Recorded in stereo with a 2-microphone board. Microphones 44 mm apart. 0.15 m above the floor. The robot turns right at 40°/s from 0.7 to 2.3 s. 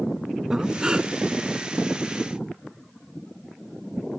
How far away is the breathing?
About 0.6 m.